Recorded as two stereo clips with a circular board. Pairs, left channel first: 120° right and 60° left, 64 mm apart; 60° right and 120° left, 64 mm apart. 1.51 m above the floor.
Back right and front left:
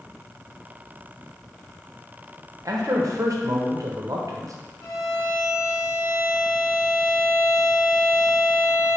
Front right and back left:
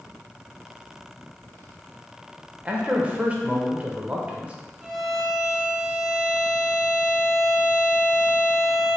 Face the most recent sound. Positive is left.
turn(degrees=-155)